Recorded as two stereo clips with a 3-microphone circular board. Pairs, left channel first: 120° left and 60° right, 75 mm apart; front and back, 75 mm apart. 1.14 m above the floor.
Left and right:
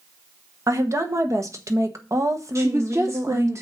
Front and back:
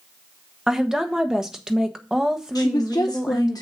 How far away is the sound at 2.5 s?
About 1.0 m.